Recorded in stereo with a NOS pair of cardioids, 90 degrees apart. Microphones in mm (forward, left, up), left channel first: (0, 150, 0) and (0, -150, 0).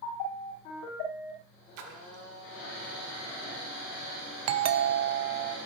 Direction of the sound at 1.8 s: 65° right.